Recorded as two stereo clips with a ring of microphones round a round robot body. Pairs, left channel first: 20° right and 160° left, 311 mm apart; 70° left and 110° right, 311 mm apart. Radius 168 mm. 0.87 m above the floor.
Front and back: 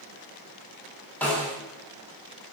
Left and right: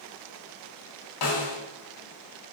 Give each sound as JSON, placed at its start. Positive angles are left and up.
{"t": 1.2, "sound": "a snare drum", "azimuth_deg": 60, "distance_m": 1.7}